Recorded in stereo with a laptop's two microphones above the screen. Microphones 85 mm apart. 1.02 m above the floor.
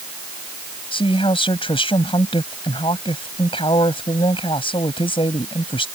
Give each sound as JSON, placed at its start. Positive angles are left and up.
{"t": 0.9, "sound": "a woman speaking", "side_deg": 75}